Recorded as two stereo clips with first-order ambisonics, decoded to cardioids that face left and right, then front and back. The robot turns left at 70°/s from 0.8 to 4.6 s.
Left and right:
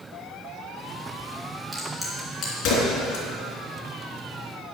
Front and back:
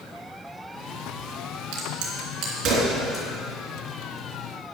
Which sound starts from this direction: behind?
A crack, at 1.7 s.